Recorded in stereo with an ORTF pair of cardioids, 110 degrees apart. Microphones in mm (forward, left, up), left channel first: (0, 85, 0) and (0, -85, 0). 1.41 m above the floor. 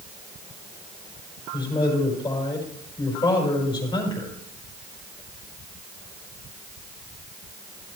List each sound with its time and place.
1.5 s a man speaking: 25° left, 5 m